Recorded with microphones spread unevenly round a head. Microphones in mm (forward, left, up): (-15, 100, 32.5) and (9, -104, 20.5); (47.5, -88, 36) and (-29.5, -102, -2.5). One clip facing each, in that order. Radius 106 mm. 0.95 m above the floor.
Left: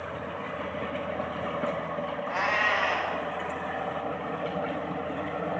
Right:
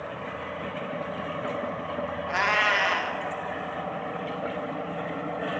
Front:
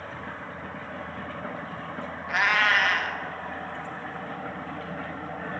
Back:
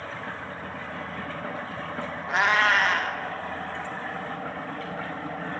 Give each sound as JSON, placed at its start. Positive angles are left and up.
{"t": 2.3, "sound": "a cat meowing", "azimuth_deg": -100, "distance_m": 0.8}